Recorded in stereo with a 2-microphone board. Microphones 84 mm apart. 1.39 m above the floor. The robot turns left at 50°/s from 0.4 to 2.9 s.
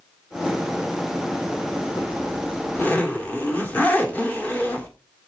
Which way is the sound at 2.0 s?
65° left.